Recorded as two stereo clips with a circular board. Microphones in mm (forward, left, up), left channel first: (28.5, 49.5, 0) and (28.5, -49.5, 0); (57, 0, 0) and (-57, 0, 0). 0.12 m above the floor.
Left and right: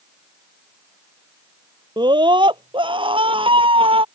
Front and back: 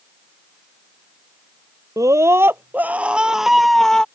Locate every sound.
2.0 s a scream: 120° right; by 4.0 s 80° right